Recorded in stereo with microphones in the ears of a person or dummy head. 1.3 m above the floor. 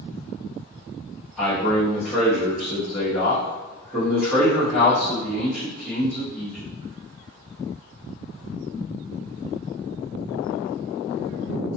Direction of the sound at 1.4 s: 5° left (ahead or behind).